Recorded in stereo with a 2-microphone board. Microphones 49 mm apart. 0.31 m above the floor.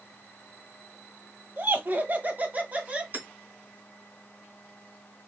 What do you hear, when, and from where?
1.6 s laughter: 45° right (ahead or behind), 1.2 m; by 3.0 s 25° right (ahead or behind), 1.5 m
3.1 s hammering: 40° right (ahead or behind), 2.5 m